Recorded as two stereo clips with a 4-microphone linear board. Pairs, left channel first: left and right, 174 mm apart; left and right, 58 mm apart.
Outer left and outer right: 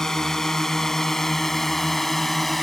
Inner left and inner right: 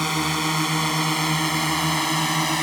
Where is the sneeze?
I don't hear a sneeze.